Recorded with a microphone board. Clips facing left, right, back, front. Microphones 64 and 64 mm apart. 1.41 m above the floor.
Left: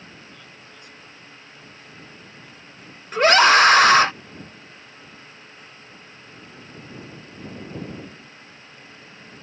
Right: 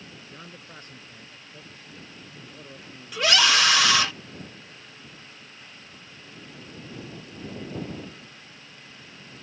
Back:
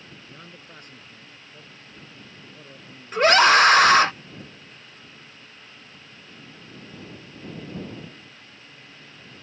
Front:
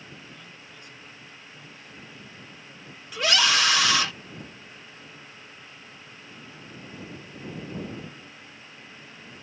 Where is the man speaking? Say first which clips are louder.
Right 1 dB, back 2 dB; 140° right; by 3.9 s 125° right.